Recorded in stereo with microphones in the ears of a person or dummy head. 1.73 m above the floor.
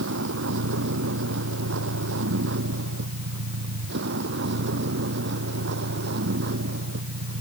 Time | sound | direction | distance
0.0 | a vehicle | 75° right (ahead or behind) | ?